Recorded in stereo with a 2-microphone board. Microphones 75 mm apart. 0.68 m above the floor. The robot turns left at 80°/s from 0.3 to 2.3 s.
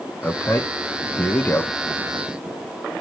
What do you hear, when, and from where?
0.2 s a man speaking: 25° left (ahead or behind), 1.0 m; by 1.7 s 10° left (ahead or behind), 1.0 m